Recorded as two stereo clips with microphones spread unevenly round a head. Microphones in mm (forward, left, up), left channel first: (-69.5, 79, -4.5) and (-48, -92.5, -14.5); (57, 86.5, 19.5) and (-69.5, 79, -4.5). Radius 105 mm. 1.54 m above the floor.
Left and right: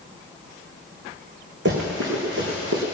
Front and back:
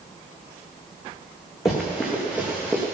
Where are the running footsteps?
65° right, 4 m; by 2.8 s 80° right, 4.5 m.